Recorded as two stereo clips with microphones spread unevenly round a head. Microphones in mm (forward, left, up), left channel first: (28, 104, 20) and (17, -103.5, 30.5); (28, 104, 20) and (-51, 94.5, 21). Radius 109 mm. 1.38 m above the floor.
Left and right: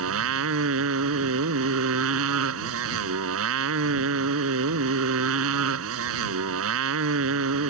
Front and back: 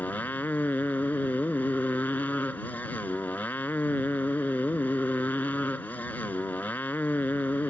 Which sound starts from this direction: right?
A motorcycle, at 0.0 s.